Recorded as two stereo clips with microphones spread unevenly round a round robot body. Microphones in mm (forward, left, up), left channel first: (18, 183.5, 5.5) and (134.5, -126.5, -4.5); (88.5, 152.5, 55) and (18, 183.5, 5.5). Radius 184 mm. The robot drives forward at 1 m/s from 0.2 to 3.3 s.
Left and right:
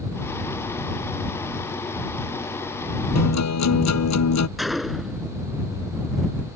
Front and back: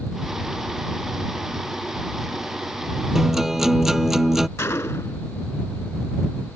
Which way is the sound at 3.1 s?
65° left.